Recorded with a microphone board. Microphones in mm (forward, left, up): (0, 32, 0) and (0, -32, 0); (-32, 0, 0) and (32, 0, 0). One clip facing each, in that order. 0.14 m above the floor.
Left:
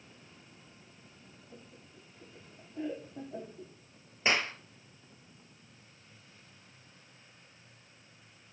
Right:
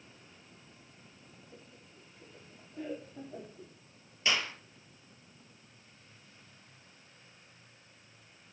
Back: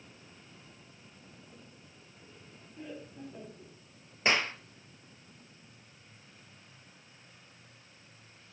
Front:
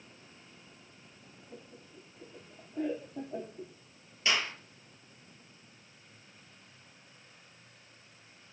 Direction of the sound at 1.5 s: 20° left.